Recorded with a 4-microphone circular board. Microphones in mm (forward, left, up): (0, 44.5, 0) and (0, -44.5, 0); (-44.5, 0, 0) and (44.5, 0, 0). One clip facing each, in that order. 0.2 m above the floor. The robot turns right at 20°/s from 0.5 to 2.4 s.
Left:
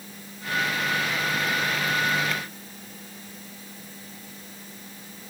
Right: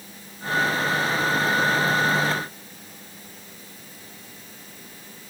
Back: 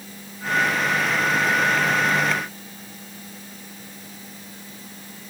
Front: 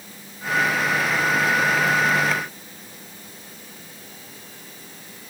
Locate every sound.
Only background noise.